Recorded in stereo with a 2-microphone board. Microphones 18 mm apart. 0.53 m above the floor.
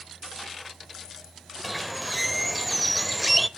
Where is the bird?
Centre (ahead or behind), 0.6 m.